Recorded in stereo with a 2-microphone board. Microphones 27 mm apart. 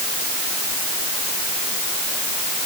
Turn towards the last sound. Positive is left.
No sound to turn to.